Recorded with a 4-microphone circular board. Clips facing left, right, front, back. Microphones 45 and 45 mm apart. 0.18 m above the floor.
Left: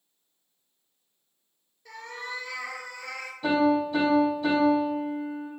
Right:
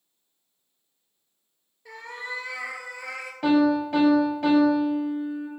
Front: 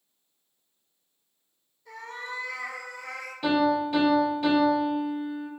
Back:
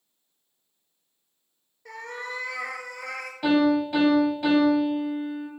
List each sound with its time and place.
1.9 s a cat meowing: 165° right, 0.6 m
3.4 s a piano: 95° right, 1.5 m